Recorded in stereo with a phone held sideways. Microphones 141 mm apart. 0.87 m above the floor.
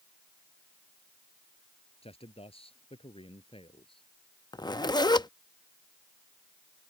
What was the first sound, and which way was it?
A man speaking, 45° left (ahead or behind).